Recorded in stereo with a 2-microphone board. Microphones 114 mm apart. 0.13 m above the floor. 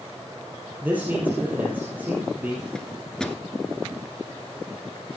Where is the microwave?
5° left (ahead or behind), 1.4 m.